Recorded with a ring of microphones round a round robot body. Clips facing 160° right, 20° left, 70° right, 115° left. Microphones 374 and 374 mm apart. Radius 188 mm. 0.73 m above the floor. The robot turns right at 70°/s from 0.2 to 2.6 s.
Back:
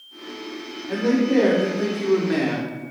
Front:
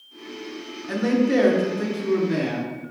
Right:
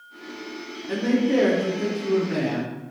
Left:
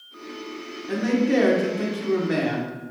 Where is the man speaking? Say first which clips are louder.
Back 1 dB, even; 25° left, 1.9 m; by 2.8 s 145° left, 1.9 m.